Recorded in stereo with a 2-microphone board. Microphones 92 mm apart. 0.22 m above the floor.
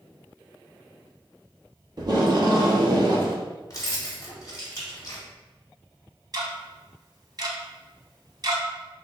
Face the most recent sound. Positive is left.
turn(degrees=-45)  # may be behind; listen again after turning